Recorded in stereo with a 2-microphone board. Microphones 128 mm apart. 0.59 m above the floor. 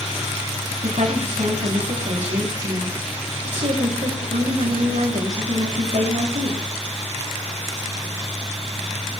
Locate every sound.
0.8 s a woman speaking: 75° right (ahead or behind), 7 m